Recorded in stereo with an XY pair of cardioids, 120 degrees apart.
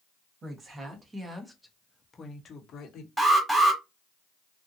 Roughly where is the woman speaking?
Ahead right.